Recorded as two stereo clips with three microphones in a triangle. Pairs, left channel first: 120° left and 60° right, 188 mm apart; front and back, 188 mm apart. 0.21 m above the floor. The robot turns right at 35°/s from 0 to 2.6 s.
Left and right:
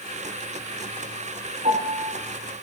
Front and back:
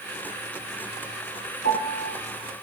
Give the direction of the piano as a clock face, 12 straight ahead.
12 o'clock.